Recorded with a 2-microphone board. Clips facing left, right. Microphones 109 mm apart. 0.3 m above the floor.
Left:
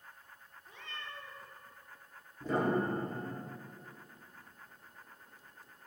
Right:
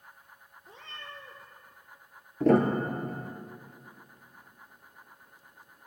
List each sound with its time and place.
0.6 s a cat meowing: 30° right (ahead or behind), 2.5 m
2.4 s a piano: 80° right, 1.9 m